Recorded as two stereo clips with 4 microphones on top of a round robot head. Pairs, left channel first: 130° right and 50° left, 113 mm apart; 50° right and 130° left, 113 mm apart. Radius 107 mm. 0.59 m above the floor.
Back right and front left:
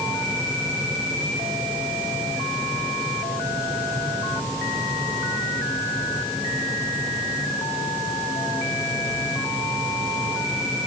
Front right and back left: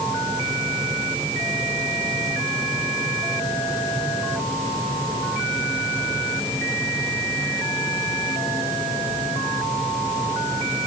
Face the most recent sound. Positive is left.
No sound to turn to.